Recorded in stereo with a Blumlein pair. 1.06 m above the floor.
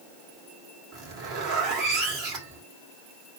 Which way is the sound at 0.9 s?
35° right.